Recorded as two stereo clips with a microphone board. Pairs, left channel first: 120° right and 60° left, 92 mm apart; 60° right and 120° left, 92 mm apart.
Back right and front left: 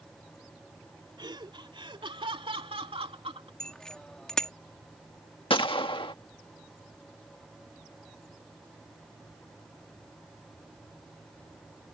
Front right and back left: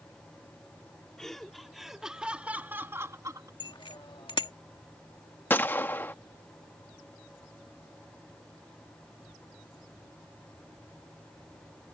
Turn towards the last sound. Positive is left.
turn(degrees=-125)